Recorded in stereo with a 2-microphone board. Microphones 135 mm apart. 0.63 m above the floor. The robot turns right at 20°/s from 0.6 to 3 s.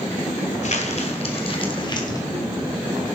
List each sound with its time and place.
0.6 s crumpling: 60° left (ahead or behind), 1.7 m; by 2.3 s 25° left (ahead or behind), 1.7 m